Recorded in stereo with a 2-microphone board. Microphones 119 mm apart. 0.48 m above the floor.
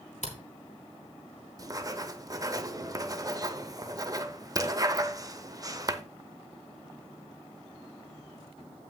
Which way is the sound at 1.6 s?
30° right (ahead or behind).